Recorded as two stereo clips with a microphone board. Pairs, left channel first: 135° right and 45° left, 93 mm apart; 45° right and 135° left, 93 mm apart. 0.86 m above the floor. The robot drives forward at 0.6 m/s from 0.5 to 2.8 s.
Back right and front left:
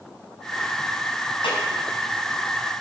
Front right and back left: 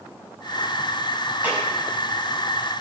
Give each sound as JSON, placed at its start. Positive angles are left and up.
{"t": 1.4, "sound": "a clap", "azimuth_deg": -155, "distance_m": 6.0}